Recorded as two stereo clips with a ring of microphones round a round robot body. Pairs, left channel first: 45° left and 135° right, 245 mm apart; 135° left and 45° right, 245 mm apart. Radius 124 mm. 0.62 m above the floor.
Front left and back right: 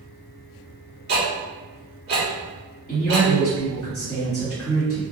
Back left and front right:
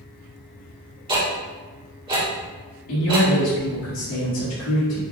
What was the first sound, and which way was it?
Ticking, 105° right.